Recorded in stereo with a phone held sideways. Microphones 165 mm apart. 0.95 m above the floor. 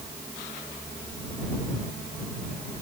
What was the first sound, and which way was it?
Only background noise.